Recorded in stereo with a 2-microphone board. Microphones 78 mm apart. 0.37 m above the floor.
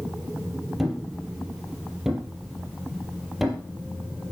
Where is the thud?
5° right (ahead or behind), 4 m.